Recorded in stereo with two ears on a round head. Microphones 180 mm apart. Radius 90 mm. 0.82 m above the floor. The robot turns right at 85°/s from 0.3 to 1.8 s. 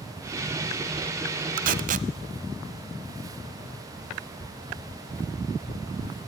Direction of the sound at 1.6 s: 45° right (ahead or behind).